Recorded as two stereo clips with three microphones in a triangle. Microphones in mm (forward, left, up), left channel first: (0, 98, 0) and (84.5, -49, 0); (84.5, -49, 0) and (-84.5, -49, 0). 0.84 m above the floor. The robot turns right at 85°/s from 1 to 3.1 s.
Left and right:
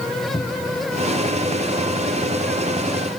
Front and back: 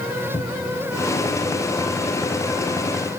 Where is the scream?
No scream in this recording.